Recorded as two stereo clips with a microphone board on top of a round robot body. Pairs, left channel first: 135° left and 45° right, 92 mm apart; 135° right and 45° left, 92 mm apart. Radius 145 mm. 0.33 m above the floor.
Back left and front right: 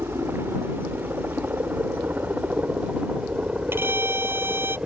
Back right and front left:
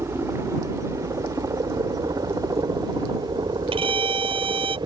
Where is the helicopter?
5° left; by 4.9 s 30° left.